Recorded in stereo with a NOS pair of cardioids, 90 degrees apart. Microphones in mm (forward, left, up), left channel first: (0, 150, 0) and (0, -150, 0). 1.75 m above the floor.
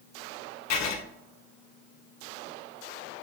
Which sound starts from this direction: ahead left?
Writing, at 0.7 s.